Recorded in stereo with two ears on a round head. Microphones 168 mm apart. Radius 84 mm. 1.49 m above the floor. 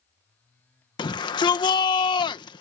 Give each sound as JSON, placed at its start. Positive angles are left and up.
{"t": 1.0, "sound": "a shout", "side_deg": 25}